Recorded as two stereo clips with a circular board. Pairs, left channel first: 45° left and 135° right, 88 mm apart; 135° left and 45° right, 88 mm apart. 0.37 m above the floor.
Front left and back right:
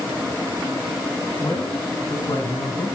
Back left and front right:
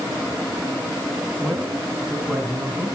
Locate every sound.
1.4 s a man speaking: 40° left, 3.5 m; by 3.0 s 35° left, 5 m